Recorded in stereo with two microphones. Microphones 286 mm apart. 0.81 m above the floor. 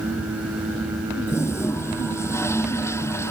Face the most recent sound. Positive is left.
turn(degrees=10)  # may be behind; listen again after turning